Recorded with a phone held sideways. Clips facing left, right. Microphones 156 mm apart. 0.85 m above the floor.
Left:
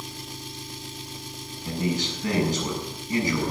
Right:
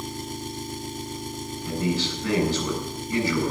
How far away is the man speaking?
About 7.5 m.